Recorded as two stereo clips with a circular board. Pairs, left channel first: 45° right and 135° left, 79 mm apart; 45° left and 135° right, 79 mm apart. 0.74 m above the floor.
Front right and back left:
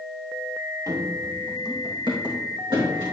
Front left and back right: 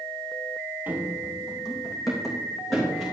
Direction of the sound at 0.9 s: 165° left.